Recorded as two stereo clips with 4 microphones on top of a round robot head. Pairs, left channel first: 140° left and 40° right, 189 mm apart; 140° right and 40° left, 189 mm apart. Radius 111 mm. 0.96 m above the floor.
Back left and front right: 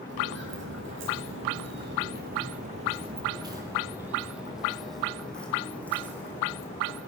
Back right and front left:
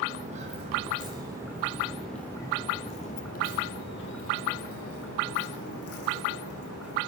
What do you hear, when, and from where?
0.1 s footsteps: 10° right, 1.8 m; by 7.0 s 145° right, 3 m